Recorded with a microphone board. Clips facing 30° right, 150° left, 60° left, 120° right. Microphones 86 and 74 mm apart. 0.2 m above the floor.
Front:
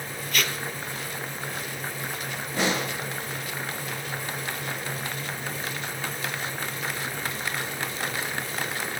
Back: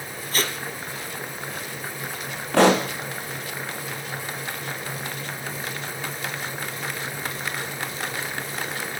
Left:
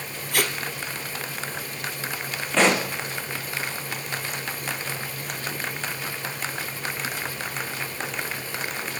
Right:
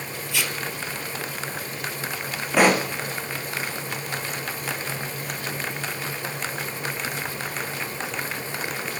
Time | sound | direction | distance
0.3 | tape being pulled | 95° left | 1.7 m
2.5 | a pop | 160° left | 2.5 m